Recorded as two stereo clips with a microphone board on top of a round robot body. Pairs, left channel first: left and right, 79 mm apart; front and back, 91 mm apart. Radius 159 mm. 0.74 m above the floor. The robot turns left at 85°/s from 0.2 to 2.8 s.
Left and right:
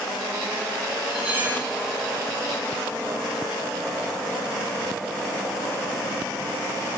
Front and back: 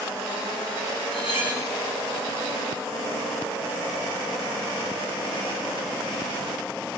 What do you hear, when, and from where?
1.1 s cutlery clinking: straight ahead, 5 m; by 1.7 s 50° right, 5 m